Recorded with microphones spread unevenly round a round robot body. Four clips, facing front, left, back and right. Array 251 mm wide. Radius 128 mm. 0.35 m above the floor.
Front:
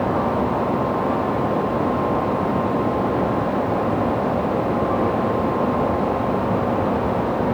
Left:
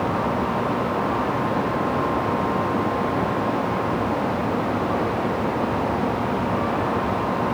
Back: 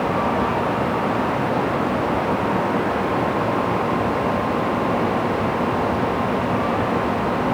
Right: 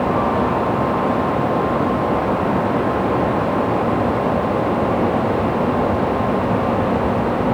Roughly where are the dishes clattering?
No dishes clattering in this recording.